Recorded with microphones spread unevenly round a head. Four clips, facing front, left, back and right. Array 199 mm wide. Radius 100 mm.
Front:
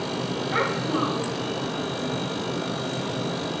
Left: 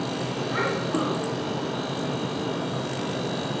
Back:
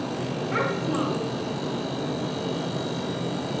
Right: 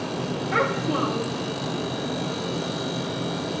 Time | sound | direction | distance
0.5 | a child speaking | 115° right | 2.5 m